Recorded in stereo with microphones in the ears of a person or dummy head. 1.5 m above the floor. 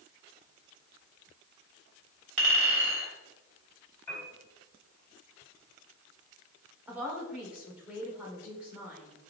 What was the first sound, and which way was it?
A clink, 40° right (ahead or behind).